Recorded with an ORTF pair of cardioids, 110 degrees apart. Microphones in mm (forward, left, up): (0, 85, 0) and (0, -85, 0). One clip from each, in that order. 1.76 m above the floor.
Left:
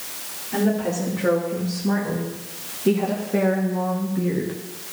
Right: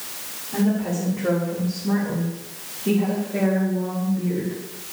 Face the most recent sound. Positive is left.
turn(degrees=55)